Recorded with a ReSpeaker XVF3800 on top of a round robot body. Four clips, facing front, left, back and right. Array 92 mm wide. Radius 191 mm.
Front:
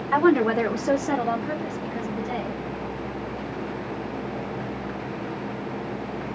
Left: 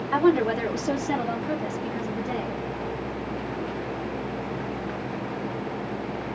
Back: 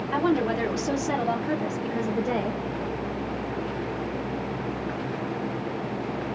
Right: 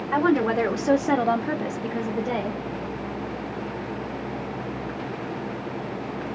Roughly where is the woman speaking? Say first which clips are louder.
Even, front 5 dB; ahead right.